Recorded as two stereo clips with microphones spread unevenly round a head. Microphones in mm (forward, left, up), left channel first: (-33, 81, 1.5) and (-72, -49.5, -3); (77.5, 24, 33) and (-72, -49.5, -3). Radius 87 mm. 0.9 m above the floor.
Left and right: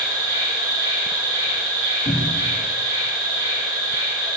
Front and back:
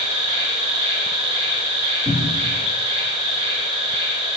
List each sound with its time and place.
0.0 s an insect: 140° right, 2.5 m
2.0 s a cupboard door: 130° left, 2 m